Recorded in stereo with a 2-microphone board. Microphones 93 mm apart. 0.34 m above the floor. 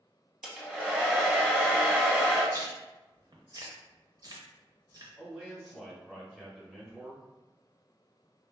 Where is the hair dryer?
5° right (ahead or behind), 0.5 m.